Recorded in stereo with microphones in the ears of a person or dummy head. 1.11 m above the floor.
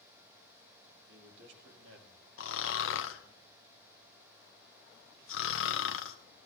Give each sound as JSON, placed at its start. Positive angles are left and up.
{"t": 1.1, "sound": "a man speaking", "side_deg": -65, "distance_m": 3.0}
{"t": 2.4, "sound": "snoring", "side_deg": 65, "distance_m": 0.8}